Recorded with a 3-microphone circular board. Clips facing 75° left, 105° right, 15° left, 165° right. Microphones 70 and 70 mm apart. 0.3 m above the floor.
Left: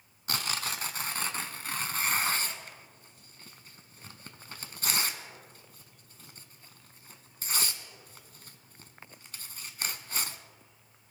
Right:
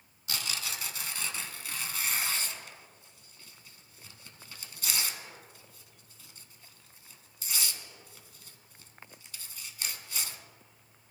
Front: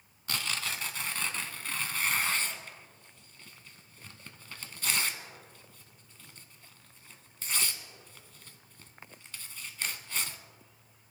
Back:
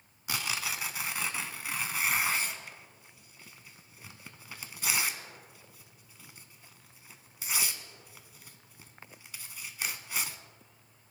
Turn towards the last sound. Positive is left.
turn(degrees=115)